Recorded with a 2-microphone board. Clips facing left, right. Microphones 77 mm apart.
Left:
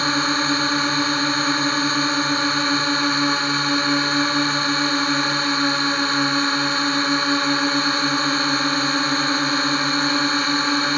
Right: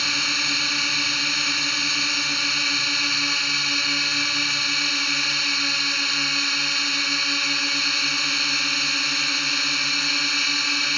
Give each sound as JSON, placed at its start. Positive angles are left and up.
{"t": 0.0, "sound": "a drone", "side_deg": 40}